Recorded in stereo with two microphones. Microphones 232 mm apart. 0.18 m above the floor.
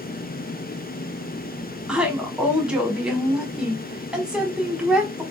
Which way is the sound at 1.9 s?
5° right (ahead or behind).